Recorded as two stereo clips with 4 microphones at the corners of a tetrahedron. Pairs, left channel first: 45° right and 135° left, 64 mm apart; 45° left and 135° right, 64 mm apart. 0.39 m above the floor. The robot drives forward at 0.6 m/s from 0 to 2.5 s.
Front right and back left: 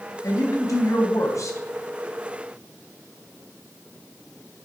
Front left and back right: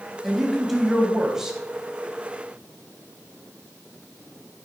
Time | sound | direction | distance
0.2 | a woman speaking | 45° right | 3 m